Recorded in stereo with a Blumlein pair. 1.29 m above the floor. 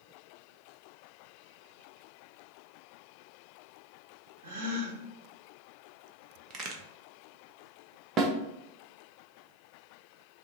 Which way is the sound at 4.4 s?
55° right.